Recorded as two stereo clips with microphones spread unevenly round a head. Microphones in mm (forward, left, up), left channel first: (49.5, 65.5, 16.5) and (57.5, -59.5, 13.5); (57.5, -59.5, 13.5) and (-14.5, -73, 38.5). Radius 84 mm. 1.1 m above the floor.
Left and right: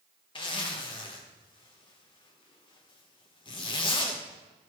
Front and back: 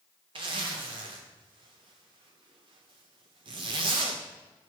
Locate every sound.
0.3 s a zipper: 150° left, 0.9 m